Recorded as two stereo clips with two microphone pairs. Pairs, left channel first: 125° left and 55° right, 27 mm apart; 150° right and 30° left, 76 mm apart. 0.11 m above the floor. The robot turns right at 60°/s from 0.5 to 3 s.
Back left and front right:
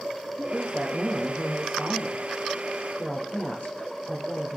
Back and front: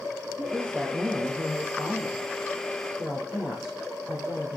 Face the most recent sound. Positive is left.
turn(degrees=115)